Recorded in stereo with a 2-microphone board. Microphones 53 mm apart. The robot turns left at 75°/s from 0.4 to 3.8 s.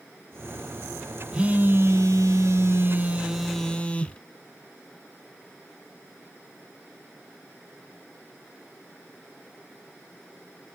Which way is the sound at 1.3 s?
20° right.